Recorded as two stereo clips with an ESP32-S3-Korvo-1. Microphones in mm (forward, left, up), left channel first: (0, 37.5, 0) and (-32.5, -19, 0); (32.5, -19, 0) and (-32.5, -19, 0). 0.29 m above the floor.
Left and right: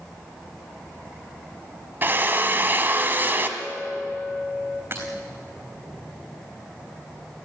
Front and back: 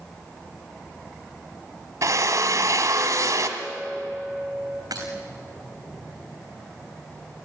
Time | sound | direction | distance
2.0 | a drill | 175° right | 1.6 m
3.6 | a clink | 75° left | 3 m
4.9 | breaking glass | 175° right | 3.5 m